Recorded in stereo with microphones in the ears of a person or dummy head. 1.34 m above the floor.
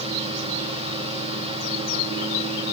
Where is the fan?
25° right (ahead or behind), 1.6 m.